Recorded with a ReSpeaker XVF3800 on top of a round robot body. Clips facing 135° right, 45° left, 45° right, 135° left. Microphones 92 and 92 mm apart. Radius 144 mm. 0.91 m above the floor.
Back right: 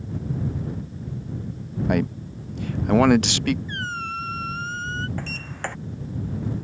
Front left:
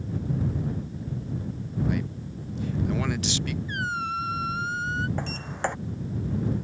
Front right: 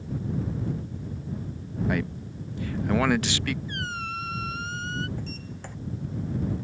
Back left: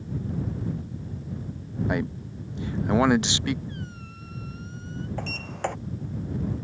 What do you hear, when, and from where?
1.9 s a man speaking: 160° right
3.7 s a squeak: 35° right
5.2 s a sliding door: 120° left